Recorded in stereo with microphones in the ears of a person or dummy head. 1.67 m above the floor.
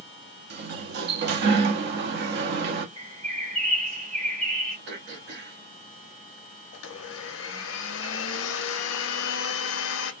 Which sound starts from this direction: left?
A blender, at 6.7 s.